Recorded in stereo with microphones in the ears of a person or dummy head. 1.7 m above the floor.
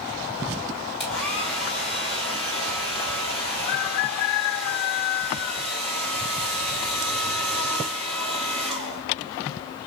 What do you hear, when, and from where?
1.0 s a hair dryer: centre (ahead or behind), 2.5 m